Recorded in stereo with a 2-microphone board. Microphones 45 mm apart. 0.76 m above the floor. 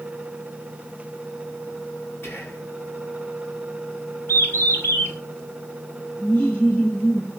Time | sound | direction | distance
2.2 | whispering | 55° left (ahead or behind) | 7 m
4.3 | a bird | 50° left (ahead or behind) | 2.5 m
6.2 | laughter | 25° left (ahead or behind) | 6 m